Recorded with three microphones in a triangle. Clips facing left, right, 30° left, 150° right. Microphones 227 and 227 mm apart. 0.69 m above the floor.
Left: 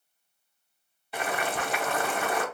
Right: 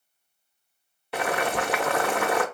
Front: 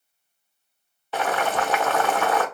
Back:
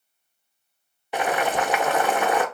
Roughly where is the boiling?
Right.